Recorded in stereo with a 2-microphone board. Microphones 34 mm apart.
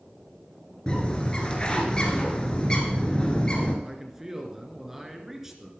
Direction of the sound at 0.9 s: 25° left (ahead or behind).